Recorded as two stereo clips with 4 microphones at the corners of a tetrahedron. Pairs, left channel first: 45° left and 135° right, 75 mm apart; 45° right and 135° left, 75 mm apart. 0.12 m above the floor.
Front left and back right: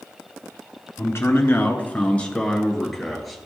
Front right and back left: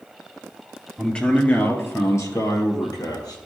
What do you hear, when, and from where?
1.0 s a man speaking: 30° left, 1.3 m; by 3.4 s 45° right, 2 m